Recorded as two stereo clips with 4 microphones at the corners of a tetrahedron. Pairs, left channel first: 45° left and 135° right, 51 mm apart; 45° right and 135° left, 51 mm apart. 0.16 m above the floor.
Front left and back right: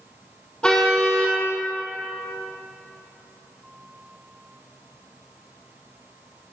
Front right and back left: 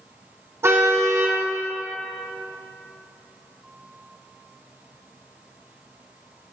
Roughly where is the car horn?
Behind left.